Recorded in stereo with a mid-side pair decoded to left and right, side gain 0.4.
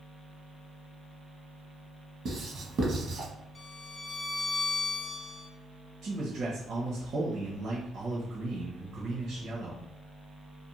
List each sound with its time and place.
2.2 s writing: 60° right, 1.0 m
3.5 s a violin: 25° left, 0.5 m
6.0 s a man speaking: 65° right, 0.8 m